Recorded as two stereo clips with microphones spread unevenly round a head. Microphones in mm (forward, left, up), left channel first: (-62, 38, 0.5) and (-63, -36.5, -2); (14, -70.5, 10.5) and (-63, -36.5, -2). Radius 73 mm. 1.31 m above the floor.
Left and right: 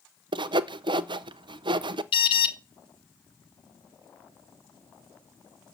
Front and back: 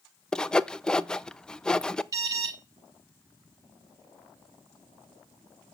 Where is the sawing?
105° right, 0.5 m.